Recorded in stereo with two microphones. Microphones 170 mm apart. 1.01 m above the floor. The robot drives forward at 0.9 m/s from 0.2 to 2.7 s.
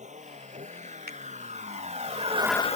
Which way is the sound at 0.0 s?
45° right (ahead or behind).